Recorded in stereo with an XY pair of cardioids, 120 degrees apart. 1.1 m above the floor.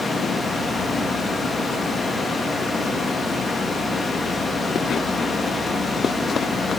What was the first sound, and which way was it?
A fan, 30° left.